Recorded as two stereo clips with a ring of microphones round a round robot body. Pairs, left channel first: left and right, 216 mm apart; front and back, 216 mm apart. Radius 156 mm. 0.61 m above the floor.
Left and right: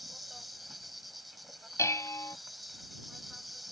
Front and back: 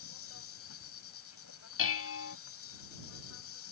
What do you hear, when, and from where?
0.0 s an insect: straight ahead
1.8 s dishes clattering: 10° left